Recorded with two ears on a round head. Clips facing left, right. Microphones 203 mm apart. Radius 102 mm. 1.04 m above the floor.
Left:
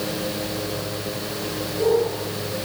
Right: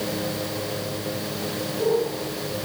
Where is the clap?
No clap in this recording.